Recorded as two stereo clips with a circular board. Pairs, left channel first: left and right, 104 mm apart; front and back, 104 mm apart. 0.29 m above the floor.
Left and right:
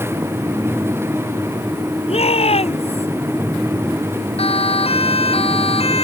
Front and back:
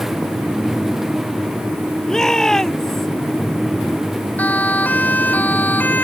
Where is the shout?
85° left.